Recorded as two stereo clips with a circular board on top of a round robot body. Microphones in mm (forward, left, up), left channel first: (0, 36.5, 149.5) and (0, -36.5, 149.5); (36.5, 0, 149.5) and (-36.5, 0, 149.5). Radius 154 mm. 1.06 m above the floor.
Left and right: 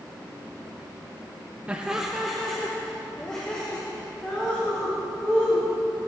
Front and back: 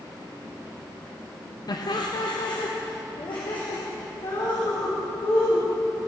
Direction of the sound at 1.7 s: 20° right.